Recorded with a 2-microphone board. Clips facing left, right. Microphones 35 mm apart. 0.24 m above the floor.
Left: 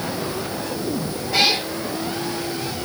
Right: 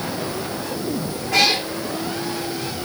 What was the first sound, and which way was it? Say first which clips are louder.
A cat meowing: right 1 dB; 80° right.